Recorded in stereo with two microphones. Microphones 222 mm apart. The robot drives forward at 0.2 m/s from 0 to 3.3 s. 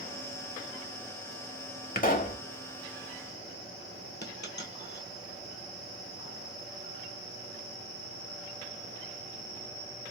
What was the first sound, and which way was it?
A pop, 40° left (ahead or behind).